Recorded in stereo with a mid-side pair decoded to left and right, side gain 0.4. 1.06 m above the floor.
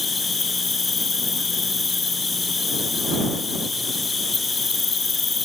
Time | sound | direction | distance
0.0 | an insect | 30° left | ?